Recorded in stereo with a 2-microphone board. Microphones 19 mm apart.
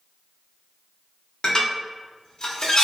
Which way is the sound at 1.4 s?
40° left (ahead or behind).